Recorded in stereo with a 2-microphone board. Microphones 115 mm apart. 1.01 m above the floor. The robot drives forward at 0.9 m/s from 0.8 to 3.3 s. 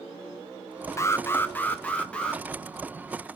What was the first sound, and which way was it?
An alarm, 25° left (ahead or behind).